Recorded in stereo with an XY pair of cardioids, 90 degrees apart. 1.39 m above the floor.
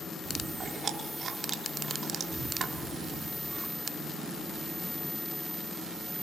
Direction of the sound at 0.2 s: 60° right.